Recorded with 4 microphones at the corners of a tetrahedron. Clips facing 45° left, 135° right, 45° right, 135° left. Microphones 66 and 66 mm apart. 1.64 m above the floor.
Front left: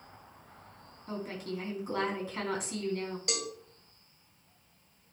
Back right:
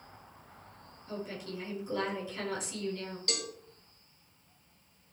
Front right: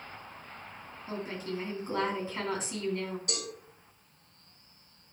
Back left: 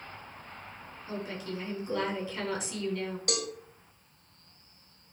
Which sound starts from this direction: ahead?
A woman speaking, at 1.1 s.